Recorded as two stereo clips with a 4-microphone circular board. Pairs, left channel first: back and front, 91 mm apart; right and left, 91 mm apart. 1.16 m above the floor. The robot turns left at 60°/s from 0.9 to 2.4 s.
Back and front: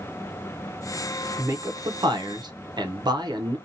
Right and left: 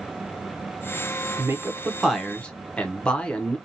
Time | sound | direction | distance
1.4 | a man speaking | 45° left | 0.6 m